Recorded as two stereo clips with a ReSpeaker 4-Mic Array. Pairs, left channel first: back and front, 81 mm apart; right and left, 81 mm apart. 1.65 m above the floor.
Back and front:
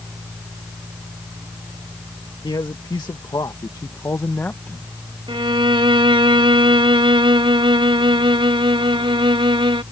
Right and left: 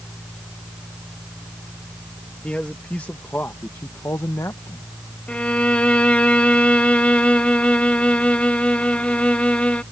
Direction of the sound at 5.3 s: 15° right.